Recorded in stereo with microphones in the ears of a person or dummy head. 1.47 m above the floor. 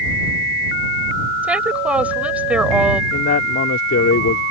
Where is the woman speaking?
10° right (ahead or behind).